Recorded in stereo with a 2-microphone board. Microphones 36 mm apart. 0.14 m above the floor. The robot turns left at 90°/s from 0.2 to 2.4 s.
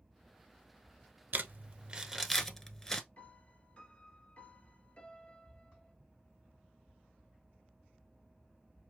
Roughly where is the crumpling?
Right.